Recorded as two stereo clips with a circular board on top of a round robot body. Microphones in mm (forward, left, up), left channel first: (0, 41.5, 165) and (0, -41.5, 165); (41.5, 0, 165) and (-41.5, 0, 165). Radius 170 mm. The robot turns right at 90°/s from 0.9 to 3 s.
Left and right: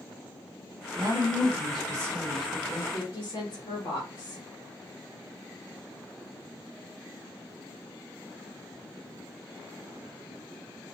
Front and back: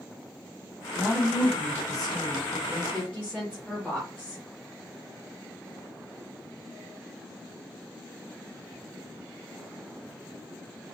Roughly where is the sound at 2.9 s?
Left.